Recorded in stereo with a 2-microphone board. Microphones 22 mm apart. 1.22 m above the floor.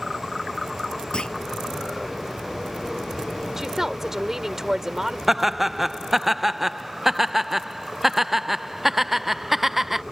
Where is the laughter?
10° right (ahead or behind).